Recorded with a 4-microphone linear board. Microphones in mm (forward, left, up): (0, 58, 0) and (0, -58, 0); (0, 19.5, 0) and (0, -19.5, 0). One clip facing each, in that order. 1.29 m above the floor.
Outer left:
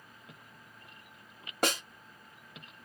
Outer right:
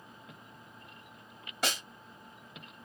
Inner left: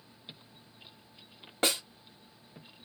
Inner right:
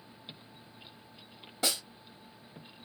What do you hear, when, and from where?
1.6 s a snare drum: 50° left (ahead or behind), 1.3 m